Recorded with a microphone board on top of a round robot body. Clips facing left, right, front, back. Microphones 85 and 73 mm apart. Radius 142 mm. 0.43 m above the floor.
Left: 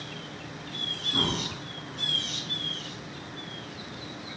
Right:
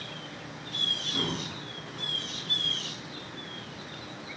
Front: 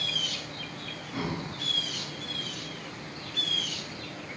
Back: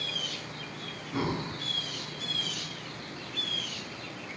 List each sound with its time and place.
1.1 s breathing: 135° left, 1.1 m